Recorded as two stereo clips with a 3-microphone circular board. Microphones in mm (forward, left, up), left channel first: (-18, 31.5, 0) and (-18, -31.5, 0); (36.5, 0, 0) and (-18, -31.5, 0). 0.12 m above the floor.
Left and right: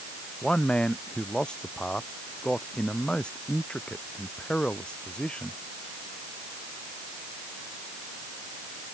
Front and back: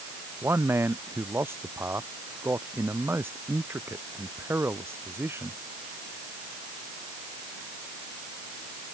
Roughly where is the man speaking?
Behind.